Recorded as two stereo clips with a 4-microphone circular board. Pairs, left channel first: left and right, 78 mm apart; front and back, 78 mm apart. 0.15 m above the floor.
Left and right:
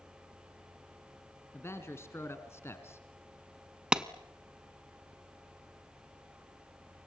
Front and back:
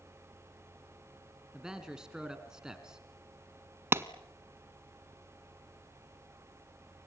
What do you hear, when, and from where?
1.5 s a man speaking: 105° left, 1.8 m
3.9 s a clap: 160° right, 0.9 m